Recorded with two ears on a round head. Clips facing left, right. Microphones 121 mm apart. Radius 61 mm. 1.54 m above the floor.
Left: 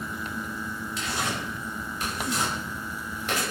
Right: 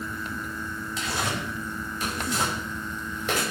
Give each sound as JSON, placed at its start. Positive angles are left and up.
{"t": 1.0, "sound": "tearing paper", "side_deg": -85, "distance_m": 5.5}